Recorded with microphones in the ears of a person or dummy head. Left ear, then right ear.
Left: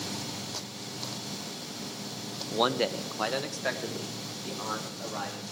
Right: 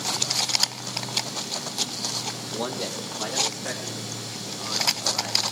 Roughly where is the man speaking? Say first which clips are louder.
Left 6 dB; left.